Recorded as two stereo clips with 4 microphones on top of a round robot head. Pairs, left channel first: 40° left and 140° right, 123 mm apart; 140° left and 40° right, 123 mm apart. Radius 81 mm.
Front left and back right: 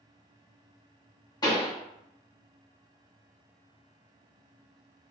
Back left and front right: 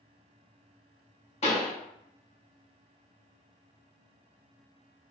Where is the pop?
100° left, 0.9 m.